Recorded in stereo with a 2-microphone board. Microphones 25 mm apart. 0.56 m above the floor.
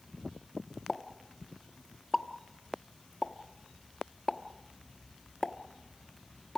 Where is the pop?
15° left (ahead or behind), 1.0 m.